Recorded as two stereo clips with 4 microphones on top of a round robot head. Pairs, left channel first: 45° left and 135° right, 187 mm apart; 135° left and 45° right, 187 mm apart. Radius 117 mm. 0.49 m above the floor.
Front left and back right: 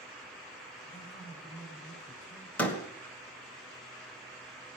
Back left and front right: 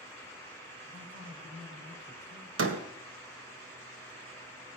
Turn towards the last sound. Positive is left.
turn(degrees=-40)